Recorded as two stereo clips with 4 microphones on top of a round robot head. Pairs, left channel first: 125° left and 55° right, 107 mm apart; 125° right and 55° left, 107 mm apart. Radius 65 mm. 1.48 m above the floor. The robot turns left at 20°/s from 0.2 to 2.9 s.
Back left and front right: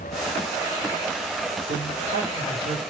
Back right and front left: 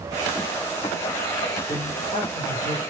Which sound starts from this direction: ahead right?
A man speaking, at 1.7 s.